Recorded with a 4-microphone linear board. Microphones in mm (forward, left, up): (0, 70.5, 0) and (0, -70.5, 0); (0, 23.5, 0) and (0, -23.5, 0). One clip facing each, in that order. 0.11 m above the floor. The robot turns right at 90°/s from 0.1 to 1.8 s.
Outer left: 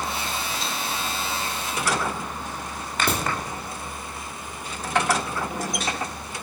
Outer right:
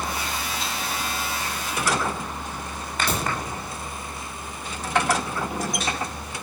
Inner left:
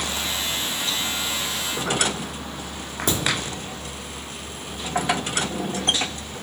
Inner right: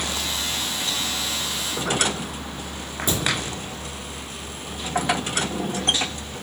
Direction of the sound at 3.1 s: 60° left (ahead or behind).